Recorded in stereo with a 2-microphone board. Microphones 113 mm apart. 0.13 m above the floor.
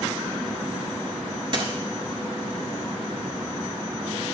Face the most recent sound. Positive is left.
turn(degrees=-45)  # may be behind; listen again after turning